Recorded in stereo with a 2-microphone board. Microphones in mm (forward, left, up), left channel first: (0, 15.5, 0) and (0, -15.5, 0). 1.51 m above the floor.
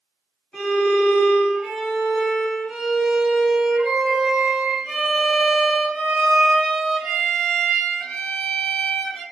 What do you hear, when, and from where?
0.5 s a violin: 35° left (ahead or behind), 1.9 m